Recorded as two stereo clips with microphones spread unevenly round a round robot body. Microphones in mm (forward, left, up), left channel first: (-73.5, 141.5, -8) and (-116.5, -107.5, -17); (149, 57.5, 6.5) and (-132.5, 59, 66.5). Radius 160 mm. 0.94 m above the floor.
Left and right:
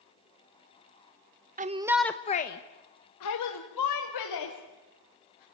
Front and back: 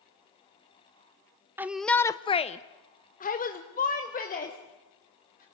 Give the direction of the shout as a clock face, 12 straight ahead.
3 o'clock.